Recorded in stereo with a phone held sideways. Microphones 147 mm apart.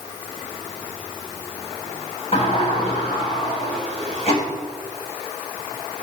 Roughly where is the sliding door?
Left.